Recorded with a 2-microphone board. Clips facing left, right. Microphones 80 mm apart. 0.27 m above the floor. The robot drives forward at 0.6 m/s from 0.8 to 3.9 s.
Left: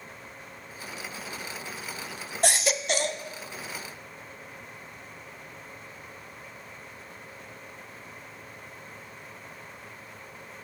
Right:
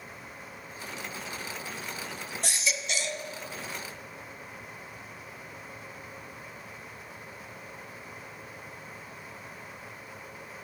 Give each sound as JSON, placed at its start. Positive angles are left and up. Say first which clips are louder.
{"t": 2.4, "sound": "a baby crying", "louder": "left 8 dB", "side_deg": 70, "distance_m": 0.6}